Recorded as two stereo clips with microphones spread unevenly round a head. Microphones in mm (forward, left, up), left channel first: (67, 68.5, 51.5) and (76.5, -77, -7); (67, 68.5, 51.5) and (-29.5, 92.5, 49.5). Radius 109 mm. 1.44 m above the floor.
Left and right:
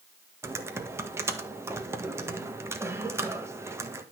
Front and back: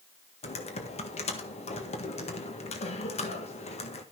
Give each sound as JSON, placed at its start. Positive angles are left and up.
{"t": 0.4, "sound": "typing on a keyboard", "azimuth_deg": -15, "distance_m": 1.7}